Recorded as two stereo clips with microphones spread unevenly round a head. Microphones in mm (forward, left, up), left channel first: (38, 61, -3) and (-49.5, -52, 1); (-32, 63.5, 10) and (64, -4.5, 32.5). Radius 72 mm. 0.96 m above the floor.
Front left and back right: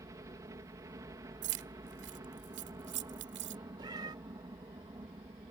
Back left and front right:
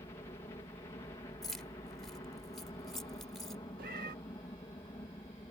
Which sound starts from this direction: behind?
A helicopter, at 0.0 s.